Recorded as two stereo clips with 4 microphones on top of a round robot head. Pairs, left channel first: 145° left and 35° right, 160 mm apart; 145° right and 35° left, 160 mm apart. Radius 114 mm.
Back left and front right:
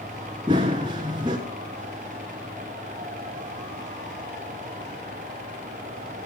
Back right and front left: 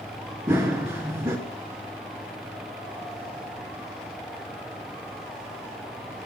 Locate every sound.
0.5 s running footsteps: 25° right, 1.1 m